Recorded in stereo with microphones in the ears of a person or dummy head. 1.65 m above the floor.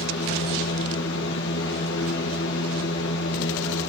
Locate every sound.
0.0 s a fan: 65° left (ahead or behind), 3.5 m